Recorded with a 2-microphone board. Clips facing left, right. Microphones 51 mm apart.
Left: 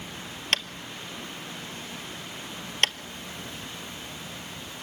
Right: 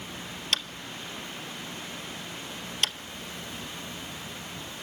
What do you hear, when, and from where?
0.5 s tapping: 45° left (ahead or behind), 0.7 m